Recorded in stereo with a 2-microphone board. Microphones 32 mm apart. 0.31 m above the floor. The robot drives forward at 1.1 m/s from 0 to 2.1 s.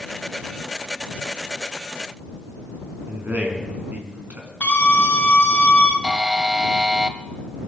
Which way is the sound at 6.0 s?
15° right (ahead or behind).